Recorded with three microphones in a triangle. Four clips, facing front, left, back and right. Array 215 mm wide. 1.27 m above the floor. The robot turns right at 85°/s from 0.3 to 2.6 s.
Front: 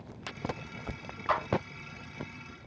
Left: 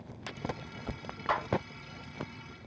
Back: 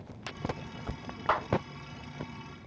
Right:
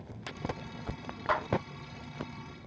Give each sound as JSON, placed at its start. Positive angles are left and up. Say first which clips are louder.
{"t": 1.3, "sound": "a clap", "louder": "right 1 dB, back 1 dB", "azimuth_deg": -175, "distance_m": 5.5}